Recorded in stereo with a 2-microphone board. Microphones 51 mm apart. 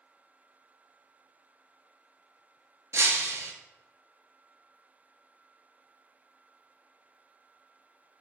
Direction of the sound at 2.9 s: 75° right (ahead or behind).